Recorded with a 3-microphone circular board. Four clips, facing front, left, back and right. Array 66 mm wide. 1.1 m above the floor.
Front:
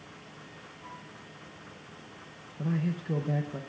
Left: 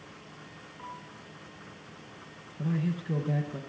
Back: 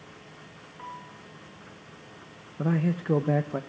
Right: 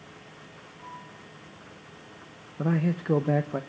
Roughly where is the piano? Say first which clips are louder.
Even, back 7 dB; behind.